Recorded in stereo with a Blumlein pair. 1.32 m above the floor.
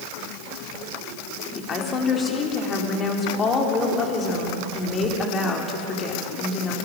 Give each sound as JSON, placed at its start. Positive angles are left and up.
{"t": 1.6, "sound": "a woman speaking", "azimuth_deg": 25, "distance_m": 4.0}